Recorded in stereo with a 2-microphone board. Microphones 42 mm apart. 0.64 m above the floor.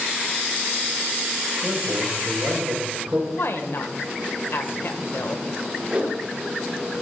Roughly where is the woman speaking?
Left.